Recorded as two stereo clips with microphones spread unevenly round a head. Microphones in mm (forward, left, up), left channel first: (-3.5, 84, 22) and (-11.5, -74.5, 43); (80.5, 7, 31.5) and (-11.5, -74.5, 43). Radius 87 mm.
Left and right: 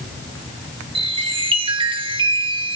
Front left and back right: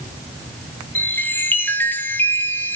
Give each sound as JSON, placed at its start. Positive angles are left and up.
{"t": 0.9, "sound": "a chime", "azimuth_deg": -30, "distance_m": 2.0}